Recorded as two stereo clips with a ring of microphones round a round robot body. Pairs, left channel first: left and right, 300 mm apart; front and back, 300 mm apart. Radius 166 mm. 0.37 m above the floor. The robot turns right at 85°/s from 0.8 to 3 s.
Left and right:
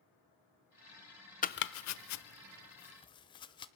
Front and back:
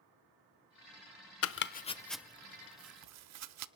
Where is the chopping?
30° left, 0.9 m; by 3.7 s 165° left, 0.9 m.